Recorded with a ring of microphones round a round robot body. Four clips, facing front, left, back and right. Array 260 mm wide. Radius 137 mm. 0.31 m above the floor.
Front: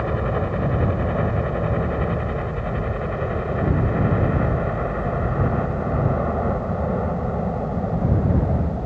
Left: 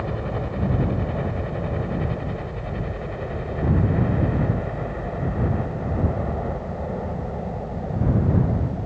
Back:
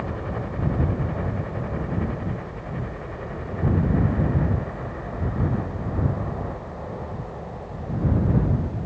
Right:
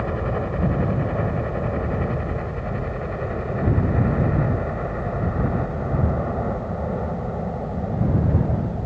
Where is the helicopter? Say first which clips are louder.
Right 3 dB, front 7 dB; 20° right; by 8.9 s 10° right.